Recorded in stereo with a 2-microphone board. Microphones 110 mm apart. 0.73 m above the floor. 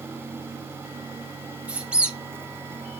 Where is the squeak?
10° right (ahead or behind), 0.6 m.